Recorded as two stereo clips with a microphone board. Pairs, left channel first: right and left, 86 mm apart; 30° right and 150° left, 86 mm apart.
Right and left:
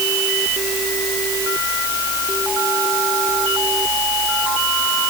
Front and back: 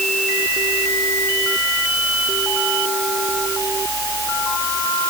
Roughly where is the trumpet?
I don't hear a trumpet.